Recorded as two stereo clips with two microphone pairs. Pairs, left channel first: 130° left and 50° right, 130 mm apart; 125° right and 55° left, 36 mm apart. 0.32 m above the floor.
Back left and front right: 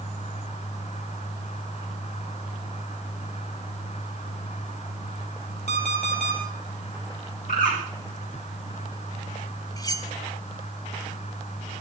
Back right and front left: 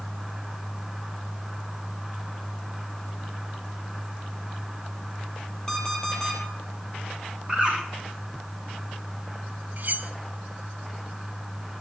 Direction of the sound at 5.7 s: 155° left.